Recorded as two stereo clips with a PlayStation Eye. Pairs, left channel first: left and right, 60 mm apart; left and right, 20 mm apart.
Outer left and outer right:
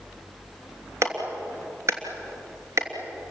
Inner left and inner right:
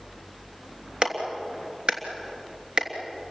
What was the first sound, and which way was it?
A clap, 55° right (ahead or behind).